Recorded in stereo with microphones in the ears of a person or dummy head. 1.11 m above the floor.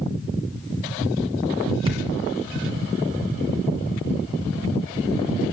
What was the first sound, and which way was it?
A thud, 35° right (ahead or behind).